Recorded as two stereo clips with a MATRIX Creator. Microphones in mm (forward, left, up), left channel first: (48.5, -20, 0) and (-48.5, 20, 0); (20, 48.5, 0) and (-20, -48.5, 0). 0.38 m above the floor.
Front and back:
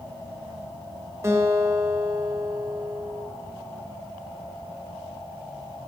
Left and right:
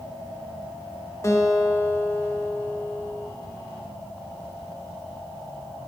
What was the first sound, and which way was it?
A guitar, 110° left.